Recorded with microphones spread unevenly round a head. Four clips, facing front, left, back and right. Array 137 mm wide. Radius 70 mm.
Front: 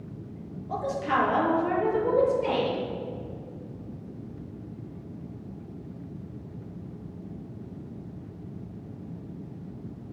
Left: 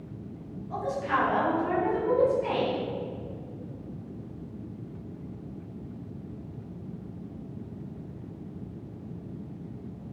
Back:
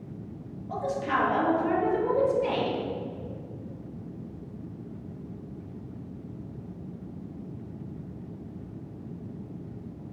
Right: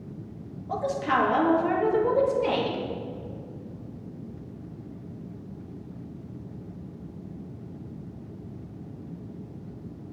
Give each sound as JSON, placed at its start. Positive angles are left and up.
{"t": 0.7, "sound": "a woman speaking", "azimuth_deg": -95, "distance_m": 2.5}